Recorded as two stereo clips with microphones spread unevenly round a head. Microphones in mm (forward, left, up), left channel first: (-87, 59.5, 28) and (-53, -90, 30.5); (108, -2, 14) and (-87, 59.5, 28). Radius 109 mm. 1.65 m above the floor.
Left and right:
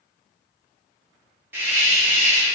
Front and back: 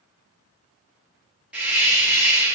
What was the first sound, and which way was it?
A hiss, 130° right.